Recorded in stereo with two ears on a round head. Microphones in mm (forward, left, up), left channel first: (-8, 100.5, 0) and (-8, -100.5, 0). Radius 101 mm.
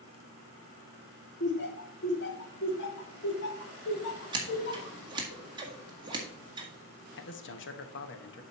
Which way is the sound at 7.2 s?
55° left (ahead or behind).